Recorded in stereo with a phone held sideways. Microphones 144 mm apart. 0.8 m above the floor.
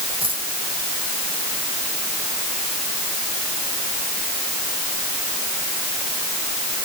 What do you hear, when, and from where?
0.2 s a dropped coin: 35° right (ahead or behind)